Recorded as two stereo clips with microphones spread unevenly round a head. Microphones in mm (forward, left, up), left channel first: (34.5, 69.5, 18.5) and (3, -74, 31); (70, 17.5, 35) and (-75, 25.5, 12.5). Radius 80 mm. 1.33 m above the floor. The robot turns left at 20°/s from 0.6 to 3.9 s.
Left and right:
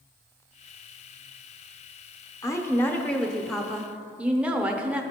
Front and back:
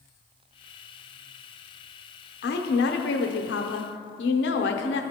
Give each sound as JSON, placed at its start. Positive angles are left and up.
{"t": 2.4, "sound": "a woman speaking", "azimuth_deg": 10, "distance_m": 0.8}